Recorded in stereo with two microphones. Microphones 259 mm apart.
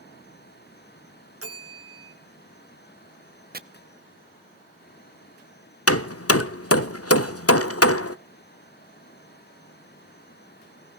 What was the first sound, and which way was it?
A bell, 70° right (ahead or behind).